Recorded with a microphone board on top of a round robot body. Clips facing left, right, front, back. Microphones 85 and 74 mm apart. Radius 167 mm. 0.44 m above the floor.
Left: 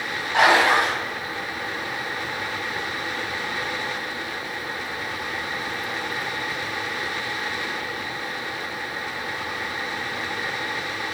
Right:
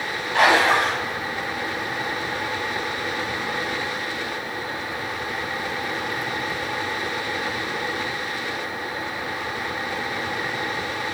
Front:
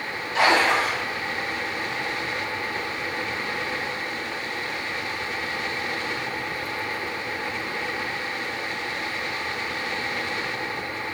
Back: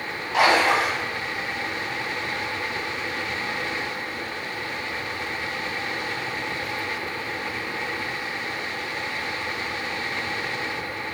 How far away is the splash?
About 1.5 m.